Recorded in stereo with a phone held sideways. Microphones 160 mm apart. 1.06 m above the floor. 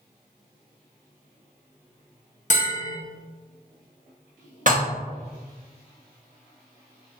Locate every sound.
2.5 s a bell: 50° left (ahead or behind), 0.7 m
4.7 s dishes clattering: 55° right (ahead or behind), 0.8 m